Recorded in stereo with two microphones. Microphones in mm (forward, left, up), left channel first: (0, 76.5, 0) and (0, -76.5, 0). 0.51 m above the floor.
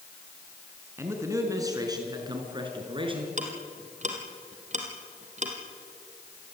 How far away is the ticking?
About 3.5 m.